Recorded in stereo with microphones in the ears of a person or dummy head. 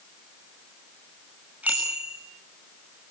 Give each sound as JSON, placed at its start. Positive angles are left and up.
{"t": 1.6, "sound": "a bicycle bell", "side_deg": -5, "distance_m": 6.0}